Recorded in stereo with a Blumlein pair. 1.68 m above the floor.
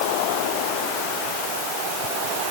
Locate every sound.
Only background noise.